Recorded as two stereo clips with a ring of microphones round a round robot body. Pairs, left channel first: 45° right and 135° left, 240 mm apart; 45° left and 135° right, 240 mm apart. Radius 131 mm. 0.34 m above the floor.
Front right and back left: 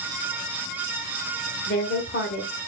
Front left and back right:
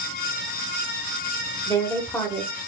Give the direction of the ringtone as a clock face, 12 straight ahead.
No ringtone in this recording.